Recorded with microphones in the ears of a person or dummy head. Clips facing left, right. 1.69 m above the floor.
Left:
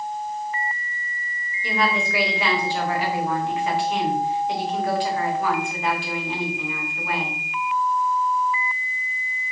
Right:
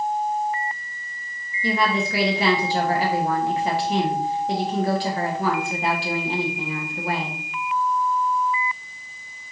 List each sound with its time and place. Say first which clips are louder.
1.6 s a woman speaking: right 2 dB; 35° right (ahead or behind), 0.9 m